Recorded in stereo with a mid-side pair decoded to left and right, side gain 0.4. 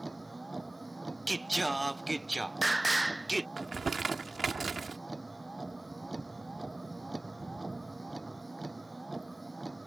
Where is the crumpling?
40° right.